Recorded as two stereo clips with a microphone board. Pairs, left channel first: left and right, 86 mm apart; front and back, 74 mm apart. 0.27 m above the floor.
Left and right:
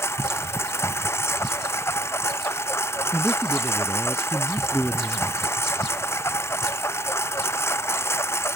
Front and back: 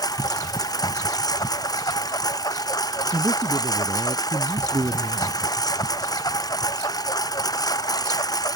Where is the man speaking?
175° right.